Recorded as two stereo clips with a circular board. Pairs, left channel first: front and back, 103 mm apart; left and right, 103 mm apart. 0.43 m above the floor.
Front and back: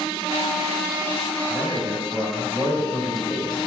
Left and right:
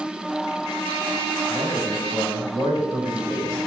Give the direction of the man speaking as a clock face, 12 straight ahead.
5 o'clock.